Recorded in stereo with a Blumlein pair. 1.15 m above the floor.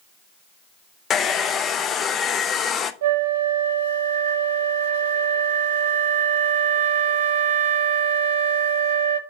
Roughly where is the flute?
Ahead right.